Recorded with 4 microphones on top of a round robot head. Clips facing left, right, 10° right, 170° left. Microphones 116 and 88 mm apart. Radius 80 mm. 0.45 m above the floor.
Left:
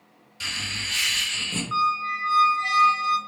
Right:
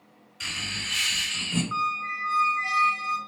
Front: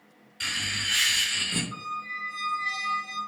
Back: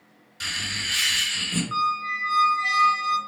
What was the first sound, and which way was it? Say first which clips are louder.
Laughter: left 1 dB, back 1 dB; 120° left.